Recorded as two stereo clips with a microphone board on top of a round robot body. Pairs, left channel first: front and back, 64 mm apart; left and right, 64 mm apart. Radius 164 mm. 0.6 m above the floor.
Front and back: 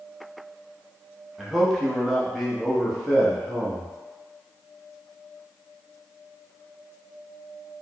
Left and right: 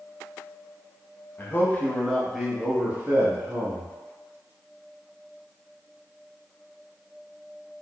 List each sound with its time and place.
1.4 s a man speaking: 85° left, 1.3 m; by 3.9 s 95° right, 1.6 m